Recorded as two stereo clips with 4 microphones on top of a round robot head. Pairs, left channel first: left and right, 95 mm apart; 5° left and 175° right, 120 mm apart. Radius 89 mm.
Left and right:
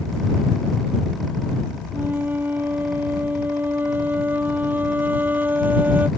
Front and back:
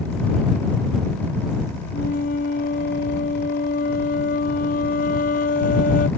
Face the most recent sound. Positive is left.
turn(degrees=-20)